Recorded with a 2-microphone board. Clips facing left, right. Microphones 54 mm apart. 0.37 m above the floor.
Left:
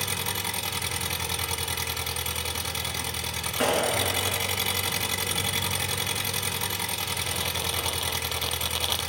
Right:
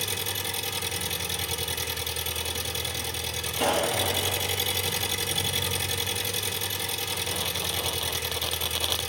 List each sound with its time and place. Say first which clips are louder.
0.0 s an engine running: left 1 dB; 60° left (ahead or behind), 2 m
3.6 s a clap: left 1 dB; 55° left (ahead or behind), 5.5 m